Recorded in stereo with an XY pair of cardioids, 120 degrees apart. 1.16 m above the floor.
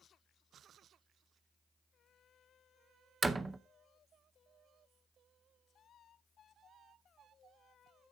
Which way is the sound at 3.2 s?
20° right.